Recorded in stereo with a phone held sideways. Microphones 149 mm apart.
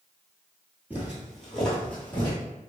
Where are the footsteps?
10° right (ahead or behind), 1.3 m; by 2.4 s 20° left (ahead or behind), 1.5 m.